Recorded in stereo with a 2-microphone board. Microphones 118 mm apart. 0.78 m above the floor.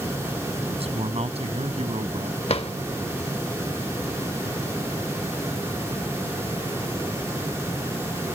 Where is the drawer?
55° left (ahead or behind).